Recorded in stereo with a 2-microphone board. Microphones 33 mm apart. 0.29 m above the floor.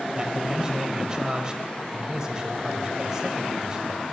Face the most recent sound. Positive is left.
turn(degrees=-20)  # may be behind; listen again after turning